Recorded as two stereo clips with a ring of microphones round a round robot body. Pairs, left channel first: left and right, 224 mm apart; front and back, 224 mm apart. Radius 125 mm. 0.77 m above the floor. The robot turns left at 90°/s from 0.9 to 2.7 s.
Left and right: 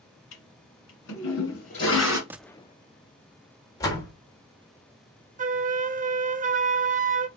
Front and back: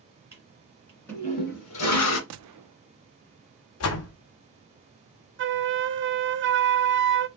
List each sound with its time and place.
0.3 s a toilet flushing: 100° left, 1.8 m; by 2.2 s 15° right, 1.8 m
2.3 s a gunshot: 170° right, 0.5 m; by 2.8 s 155° left, 0.5 m
3.8 s a door slam: 15° left, 1.2 m
5.4 s a flute: 145° right, 0.7 m